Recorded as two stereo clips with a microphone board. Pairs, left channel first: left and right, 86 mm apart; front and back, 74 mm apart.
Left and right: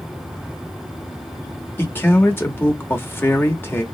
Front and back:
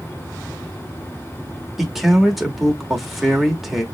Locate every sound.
1.8 s a man speaking: 95° left, 0.9 m